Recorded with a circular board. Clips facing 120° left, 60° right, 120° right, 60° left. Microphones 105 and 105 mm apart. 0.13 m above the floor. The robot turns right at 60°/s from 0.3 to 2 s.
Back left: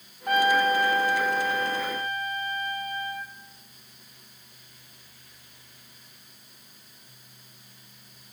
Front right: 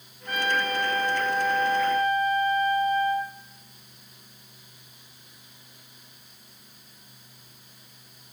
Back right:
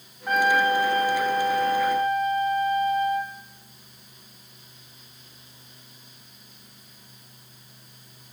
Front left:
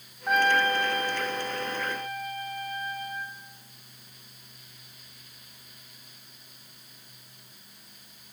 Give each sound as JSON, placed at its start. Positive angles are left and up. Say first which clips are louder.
{"t": 0.3, "sound": "a trumpet", "louder": "back left 6 dB, back right 3 dB", "azimuth_deg": 145, "distance_m": 1.6}